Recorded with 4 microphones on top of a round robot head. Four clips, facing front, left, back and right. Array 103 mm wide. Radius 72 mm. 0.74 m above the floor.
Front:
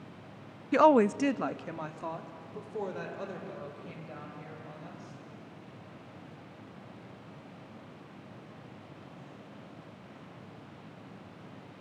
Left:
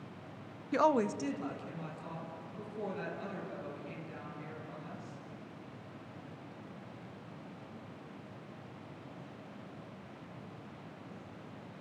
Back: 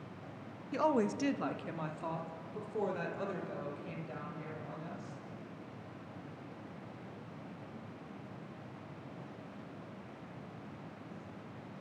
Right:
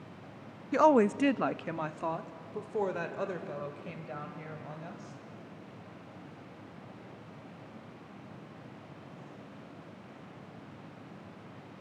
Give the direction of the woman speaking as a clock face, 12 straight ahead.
12 o'clock.